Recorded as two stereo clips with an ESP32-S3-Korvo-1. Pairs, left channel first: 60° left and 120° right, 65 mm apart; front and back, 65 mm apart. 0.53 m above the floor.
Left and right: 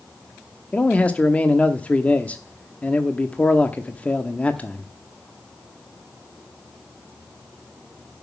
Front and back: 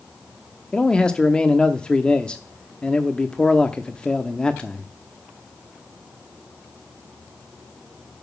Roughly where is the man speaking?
Ahead left.